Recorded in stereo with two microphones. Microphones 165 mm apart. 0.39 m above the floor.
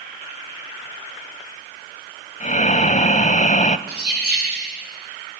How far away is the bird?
About 8 m.